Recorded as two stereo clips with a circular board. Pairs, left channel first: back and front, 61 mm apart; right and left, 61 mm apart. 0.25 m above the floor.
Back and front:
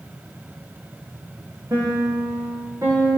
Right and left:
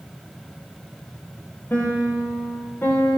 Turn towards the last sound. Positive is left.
turn(degrees=-35)